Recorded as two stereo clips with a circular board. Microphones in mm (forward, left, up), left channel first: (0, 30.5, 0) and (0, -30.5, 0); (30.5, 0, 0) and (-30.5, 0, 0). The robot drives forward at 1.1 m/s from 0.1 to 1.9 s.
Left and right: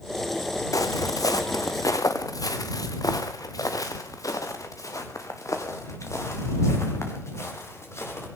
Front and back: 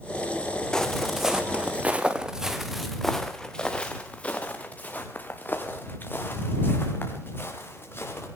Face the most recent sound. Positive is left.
turn(degrees=50)